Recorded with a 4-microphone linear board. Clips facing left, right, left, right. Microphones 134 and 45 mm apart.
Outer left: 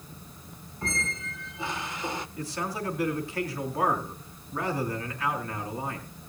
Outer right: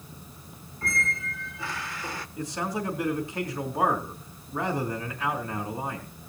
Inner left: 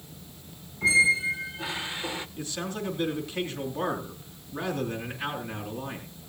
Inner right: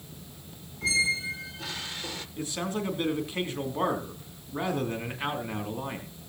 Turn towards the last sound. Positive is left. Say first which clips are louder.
# outer right 6 dB, inner right 2 dB
turn(degrees=-20)  # may be behind; listen again after turning